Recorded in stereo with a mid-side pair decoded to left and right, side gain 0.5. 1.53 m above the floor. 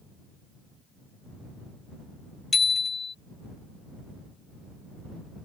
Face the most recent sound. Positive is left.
turn(degrees=30)